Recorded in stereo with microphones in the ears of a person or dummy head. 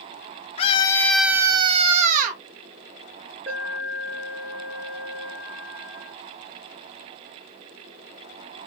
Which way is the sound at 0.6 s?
35° left (ahead or behind).